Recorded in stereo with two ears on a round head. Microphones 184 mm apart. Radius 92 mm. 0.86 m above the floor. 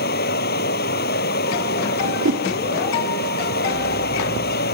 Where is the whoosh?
65° right (ahead or behind).